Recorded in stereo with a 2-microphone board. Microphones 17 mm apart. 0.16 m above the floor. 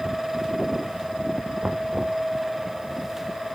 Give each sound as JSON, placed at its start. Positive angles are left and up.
{"t": 1.6, "sound": "knocking", "side_deg": -45}